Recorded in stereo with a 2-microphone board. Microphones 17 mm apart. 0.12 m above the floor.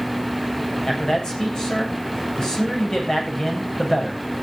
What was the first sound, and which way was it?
A man speaking, 40° left (ahead or behind).